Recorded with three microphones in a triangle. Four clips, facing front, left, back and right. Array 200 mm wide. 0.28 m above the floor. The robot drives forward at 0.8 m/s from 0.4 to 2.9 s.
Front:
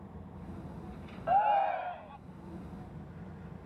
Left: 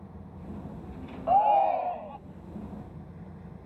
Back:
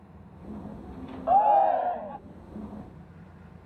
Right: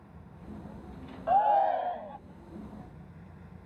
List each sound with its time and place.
1.3 s a shout: 155° left; by 2.2 s 170° left